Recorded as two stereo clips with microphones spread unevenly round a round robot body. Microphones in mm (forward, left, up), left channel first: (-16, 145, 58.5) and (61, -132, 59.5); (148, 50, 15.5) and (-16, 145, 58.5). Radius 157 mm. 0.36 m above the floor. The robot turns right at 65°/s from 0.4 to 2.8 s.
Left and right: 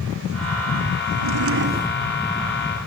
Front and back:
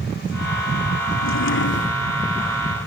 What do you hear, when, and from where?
1.1 s a drawer: 55° right; by 2.0 s straight ahead